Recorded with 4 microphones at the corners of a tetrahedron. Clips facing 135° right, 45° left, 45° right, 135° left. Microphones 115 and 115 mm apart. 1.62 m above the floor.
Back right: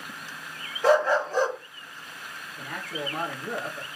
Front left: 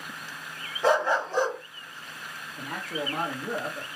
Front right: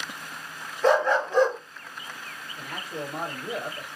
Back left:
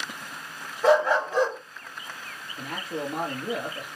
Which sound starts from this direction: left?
A man speaking, at 2.6 s.